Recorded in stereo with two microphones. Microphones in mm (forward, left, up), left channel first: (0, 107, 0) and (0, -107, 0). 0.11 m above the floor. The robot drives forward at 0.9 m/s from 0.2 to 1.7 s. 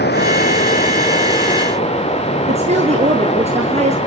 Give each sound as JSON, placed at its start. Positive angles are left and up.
{"t": 0.0, "sound": "running water", "side_deg": 50, "distance_m": 1.6}
{"t": 2.5, "sound": "a woman speaking", "side_deg": -30, "distance_m": 1.8}